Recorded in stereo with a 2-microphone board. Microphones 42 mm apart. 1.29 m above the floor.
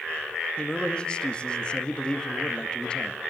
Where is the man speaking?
25° left (ahead or behind), 1.9 m.